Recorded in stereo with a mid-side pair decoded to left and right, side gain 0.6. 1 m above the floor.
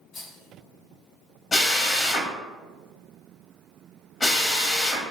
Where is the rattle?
60° left, 1.9 m.